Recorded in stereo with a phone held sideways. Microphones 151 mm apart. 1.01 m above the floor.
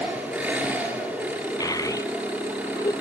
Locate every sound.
0.0 s an engine running: 10° right (ahead or behind), 6.5 m
1.6 s a child speaking: 25° left (ahead or behind), 0.5 m